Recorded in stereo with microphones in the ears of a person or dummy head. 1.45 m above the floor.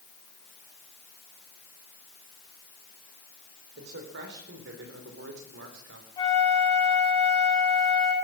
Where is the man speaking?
70° right (ahead or behind), 4.5 m; by 6.1 s 85° right, 4 m.